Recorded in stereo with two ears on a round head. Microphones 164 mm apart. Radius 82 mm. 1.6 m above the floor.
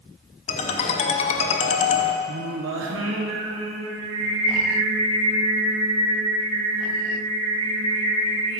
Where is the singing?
75° right (ahead or behind), 1.0 m.